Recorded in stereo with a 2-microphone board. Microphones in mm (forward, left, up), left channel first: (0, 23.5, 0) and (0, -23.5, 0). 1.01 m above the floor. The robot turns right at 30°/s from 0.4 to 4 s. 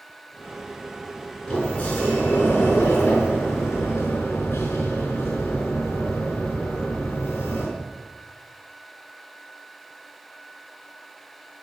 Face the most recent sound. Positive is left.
turn(degrees=90)